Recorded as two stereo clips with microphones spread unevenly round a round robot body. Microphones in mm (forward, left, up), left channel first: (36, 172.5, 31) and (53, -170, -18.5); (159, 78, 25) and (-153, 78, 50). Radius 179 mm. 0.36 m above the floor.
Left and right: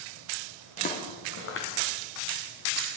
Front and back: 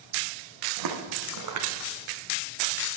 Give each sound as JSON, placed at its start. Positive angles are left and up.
{"t": 0.8, "sound": "footsteps", "azimuth_deg": 165, "distance_m": 1.5}